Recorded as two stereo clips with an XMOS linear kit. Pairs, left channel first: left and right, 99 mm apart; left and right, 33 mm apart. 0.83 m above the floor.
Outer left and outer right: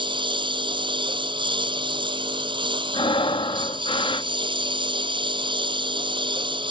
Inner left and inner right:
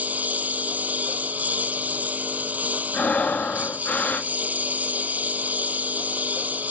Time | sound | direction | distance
0.0 | a lawn mower | 60° right (ahead or behind) | ?
2.9 | breathing | 70° left (ahead or behind) | ?